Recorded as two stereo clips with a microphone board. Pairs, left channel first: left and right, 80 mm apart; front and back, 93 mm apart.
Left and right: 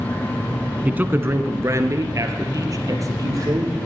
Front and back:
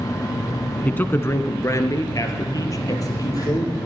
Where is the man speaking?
45° right, 1.1 m; by 3.9 s 50° right, 4.5 m.